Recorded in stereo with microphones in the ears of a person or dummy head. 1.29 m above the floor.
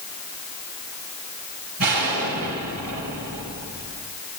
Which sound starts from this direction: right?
An explosion, at 1.8 s.